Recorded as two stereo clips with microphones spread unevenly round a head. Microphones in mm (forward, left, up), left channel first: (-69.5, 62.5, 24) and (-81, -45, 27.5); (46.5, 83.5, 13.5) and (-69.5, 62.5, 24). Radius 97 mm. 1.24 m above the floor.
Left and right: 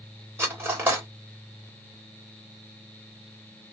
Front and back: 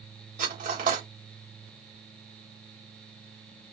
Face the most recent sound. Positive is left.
turn(degrees=-165)